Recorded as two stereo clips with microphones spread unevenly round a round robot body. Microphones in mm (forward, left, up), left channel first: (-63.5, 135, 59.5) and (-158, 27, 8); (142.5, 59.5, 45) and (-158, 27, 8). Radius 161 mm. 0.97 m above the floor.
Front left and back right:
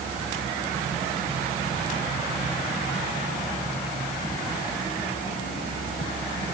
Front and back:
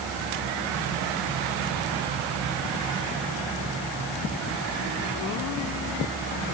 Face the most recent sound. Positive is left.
No sound to turn to.